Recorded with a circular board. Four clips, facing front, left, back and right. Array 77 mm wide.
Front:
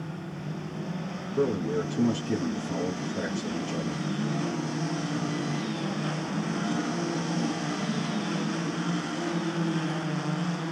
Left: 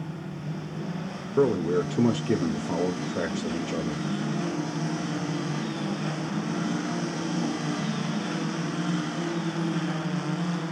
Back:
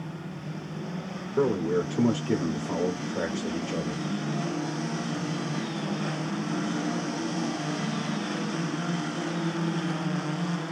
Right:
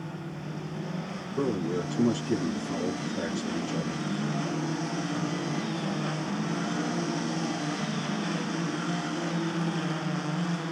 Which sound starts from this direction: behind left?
A man speaking, at 1.4 s.